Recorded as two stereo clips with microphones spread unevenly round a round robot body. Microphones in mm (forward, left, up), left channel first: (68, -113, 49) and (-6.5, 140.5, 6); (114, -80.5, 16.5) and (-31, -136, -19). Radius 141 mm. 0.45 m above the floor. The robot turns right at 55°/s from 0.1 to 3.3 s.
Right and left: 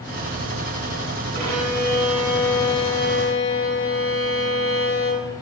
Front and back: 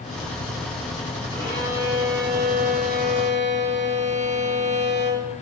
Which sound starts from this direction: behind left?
A violin, at 1.3 s.